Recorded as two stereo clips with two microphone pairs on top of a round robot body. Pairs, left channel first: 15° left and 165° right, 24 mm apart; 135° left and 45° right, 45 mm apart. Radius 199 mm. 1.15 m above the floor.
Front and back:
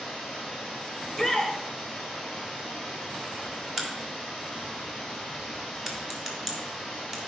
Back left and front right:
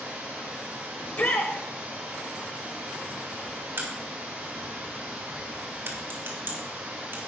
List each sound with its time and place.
0.0 s running water: 105° right, 1.3 m
1.0 s a shout: 105° left, 1.2 m
3.8 s a crack: 85° right, 1.7 m